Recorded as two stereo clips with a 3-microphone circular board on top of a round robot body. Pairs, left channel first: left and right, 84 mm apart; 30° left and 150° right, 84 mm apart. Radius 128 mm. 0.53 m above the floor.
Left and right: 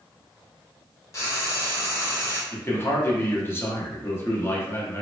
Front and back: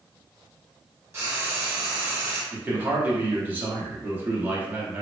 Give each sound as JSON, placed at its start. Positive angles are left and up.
{"t": 1.1, "sound": "frying", "azimuth_deg": 145, "distance_m": 0.8}
{"t": 2.5, "sound": "a man speaking", "azimuth_deg": 145, "distance_m": 1.1}